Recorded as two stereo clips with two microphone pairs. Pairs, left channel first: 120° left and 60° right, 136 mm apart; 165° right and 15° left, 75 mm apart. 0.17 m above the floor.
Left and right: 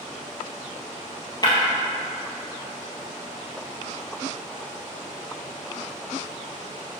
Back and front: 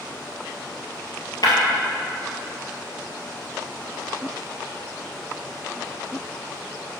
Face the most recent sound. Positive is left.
turn(degrees=175)